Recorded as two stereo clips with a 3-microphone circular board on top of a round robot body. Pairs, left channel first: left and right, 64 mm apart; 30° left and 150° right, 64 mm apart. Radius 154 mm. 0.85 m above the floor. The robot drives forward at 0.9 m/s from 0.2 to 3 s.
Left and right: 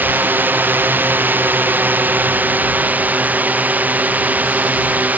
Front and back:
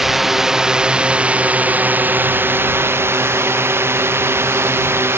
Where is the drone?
70° right; by 5.2 s 135° right.